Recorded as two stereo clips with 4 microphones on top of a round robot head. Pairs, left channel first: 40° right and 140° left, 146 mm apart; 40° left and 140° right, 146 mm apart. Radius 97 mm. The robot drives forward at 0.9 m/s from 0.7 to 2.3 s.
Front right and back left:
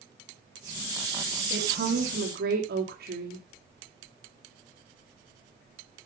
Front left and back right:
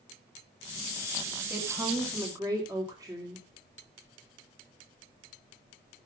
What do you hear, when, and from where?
1.5 s a woman speaking: 145° left, 1.7 m; by 3.5 s 155° left, 2.5 m